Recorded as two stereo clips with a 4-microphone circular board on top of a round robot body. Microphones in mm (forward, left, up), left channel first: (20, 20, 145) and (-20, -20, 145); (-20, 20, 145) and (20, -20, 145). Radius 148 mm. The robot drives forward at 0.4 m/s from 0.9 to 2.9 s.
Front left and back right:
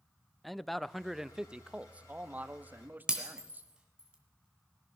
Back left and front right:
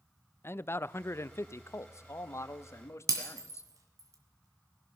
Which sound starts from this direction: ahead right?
Breaking glass, at 3.1 s.